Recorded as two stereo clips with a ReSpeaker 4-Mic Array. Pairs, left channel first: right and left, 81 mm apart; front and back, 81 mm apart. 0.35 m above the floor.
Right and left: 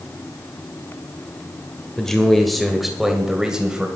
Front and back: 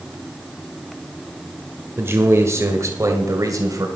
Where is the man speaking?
165° right, 1.7 m; by 3.9 s 165° left, 2 m.